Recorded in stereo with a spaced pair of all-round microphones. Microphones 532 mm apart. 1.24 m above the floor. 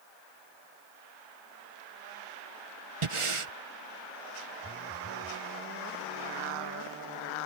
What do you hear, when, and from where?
3.0 s breathing: 65° right (ahead or behind)
4.6 s a phone buzzing: 25° right (ahead or behind)